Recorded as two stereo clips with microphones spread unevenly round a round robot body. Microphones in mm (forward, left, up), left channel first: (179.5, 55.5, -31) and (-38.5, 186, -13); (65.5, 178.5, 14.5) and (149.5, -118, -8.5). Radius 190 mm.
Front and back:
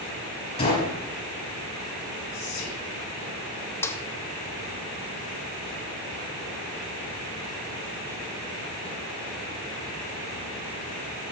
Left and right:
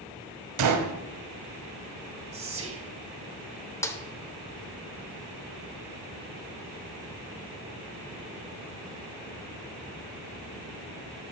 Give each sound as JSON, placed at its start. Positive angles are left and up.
{"t": 0.6, "sound": "a gunshot", "azimuth_deg": -100, "distance_m": 1.0}
{"t": 2.3, "sound": "whispering", "azimuth_deg": -30, "distance_m": 1.2}
{"t": 3.8, "sound": "a snare drum", "azimuth_deg": 25, "distance_m": 0.8}